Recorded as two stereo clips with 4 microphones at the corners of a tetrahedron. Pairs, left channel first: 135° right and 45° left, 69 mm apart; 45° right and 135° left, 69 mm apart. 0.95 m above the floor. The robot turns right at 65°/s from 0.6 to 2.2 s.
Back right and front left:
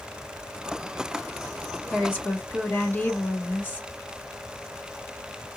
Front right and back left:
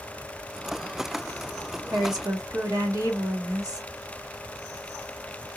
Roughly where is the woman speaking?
Behind left.